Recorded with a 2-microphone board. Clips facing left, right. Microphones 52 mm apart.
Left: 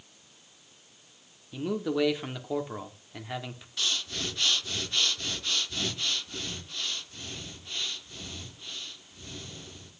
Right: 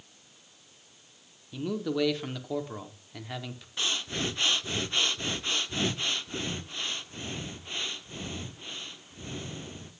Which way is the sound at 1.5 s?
10° left (ahead or behind).